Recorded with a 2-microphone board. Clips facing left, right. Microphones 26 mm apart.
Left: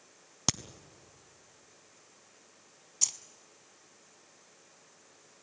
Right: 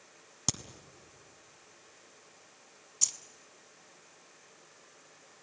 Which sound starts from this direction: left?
A crack, at 0.5 s.